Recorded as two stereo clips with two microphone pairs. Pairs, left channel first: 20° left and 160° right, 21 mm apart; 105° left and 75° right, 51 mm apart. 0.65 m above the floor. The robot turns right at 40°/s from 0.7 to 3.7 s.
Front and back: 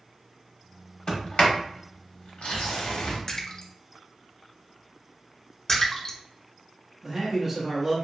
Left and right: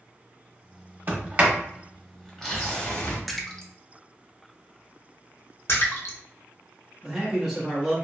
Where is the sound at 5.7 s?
80° left, 0.8 m.